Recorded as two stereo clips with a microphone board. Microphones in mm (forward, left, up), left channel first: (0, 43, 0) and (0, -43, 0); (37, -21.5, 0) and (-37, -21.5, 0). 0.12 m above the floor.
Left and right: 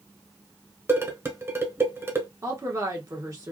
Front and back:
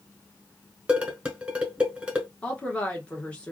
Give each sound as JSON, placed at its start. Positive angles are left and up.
{"t": 0.9, "sound": "dishes clattering", "azimuth_deg": -120, "distance_m": 1.1}
{"t": 2.4, "sound": "a woman speaking", "azimuth_deg": -65, "distance_m": 1.6}